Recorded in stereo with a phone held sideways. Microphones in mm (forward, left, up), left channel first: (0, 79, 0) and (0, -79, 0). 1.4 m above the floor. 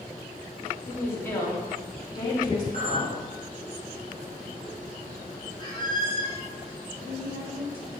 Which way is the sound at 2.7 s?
55° right (ahead or behind).